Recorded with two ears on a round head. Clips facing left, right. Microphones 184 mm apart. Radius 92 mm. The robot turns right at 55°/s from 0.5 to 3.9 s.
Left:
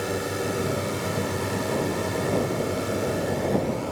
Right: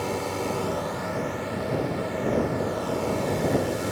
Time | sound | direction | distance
0.0 | a drone | 20° left | ?